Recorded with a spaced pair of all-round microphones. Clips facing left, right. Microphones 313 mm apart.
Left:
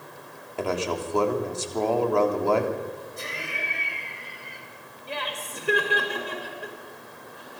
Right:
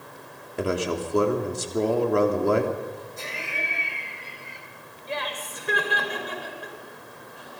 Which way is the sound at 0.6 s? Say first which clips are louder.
Right 2 dB; 20° right (ahead or behind).